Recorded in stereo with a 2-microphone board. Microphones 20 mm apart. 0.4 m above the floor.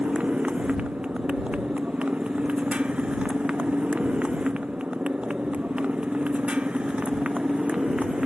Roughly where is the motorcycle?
Right.